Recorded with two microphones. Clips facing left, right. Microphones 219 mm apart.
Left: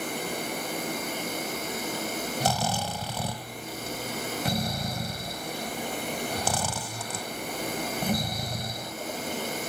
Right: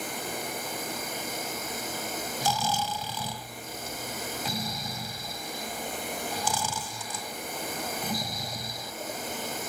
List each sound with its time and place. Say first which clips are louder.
0.0 s an insect: left 3 dB; 80° left, 5.5 m
2.4 s snoring: left 1 dB; 90° left, 1.5 m